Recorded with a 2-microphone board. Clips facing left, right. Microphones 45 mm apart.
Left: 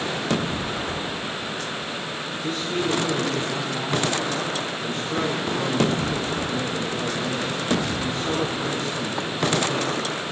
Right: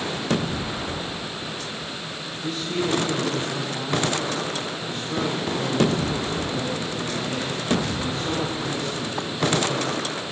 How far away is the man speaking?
About 10 m.